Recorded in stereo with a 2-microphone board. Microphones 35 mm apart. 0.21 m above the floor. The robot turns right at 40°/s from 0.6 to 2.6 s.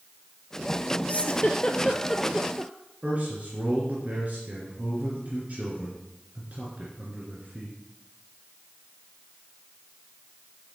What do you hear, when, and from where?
1.1 s a giggle: 40° left (ahead or behind), 0.9 m; by 2.7 s 20° right (ahead or behind), 0.9 m
3.0 s a man speaking: 40° right (ahead or behind), 3 m